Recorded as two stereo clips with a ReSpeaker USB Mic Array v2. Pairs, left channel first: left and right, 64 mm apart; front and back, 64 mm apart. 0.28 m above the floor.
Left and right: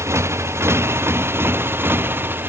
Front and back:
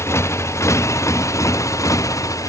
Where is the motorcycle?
45° right; by 2.5 s 35° right.